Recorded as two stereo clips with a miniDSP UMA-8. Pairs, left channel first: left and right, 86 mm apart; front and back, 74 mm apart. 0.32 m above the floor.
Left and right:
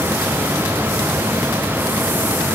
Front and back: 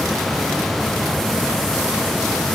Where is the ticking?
No ticking in this recording.